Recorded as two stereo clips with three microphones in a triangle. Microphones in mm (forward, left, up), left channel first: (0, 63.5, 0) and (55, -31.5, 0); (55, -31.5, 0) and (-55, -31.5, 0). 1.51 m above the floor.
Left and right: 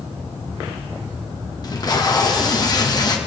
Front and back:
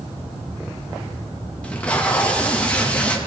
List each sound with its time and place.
1.6 s tape being pulled: 75° left, 1.0 m